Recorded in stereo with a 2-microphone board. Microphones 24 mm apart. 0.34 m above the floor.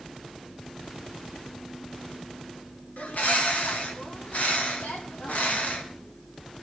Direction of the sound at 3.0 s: 80° left.